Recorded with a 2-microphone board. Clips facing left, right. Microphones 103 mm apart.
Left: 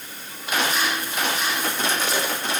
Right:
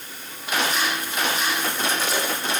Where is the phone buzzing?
I don't hear a phone buzzing.